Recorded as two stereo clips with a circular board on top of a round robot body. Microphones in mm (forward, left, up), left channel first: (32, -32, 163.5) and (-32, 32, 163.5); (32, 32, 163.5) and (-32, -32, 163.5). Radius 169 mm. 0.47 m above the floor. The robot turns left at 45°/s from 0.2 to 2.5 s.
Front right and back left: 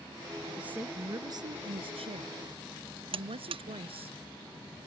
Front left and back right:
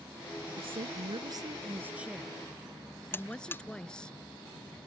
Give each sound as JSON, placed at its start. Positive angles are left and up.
{"t": 0.6, "sound": "a woman speaking", "azimuth_deg": -145}
{"t": 3.1, "sound": "a buzzer", "azimuth_deg": 115}